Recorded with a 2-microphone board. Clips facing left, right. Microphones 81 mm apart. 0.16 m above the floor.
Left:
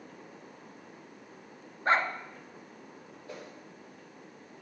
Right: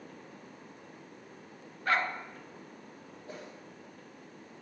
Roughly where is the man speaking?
No man speaking in this recording.